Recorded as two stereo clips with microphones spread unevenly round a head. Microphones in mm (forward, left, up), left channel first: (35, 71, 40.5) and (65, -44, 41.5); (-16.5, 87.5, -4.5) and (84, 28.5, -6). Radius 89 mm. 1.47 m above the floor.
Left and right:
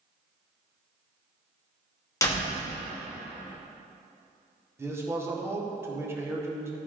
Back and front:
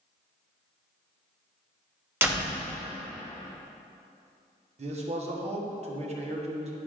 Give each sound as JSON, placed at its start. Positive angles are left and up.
{"t": 2.2, "sound": "a door slam", "azimuth_deg": 40, "distance_m": 1.9}
{"t": 4.8, "sound": "a man speaking", "azimuth_deg": -5, "distance_m": 1.5}